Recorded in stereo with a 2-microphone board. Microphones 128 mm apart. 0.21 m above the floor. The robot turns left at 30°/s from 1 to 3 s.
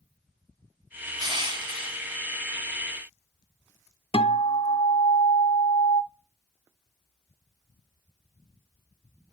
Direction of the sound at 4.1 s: 45° left (ahead or behind).